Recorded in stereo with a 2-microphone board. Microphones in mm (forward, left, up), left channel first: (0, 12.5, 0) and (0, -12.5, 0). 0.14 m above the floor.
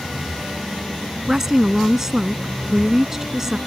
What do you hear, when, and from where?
1.3 s a woman speaking: 20° right (ahead or behind)